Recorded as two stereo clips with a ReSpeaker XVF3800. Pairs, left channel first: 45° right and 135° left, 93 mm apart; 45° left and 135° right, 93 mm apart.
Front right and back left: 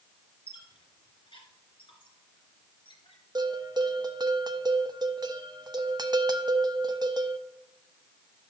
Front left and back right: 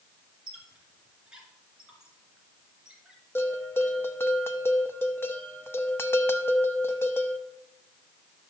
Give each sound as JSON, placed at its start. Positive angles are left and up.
{"t": 0.5, "sound": "a squeak", "azimuth_deg": -55, "distance_m": 2.5}
{"t": 3.4, "sound": "a bell", "azimuth_deg": 105, "distance_m": 0.6}